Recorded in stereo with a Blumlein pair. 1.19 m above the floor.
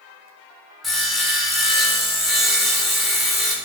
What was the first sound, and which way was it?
Sawing, 5° left.